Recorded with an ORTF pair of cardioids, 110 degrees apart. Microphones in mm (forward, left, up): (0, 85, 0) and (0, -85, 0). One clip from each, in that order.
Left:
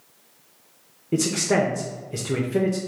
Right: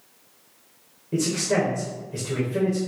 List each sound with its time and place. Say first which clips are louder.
1.1 s a man speaking: left 2 dB; 35° left, 0.7 m